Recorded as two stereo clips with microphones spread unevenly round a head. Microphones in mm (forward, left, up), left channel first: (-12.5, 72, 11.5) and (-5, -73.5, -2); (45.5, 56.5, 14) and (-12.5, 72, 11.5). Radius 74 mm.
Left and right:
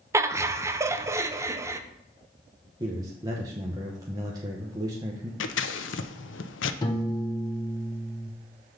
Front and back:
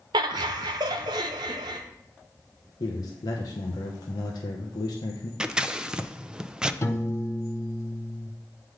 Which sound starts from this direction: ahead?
A man speaking, at 2.8 s.